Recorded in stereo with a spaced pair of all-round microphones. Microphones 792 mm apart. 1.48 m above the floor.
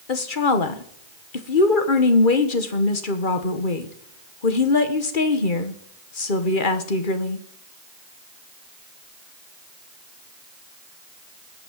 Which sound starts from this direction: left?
A woman speaking, at 0.1 s.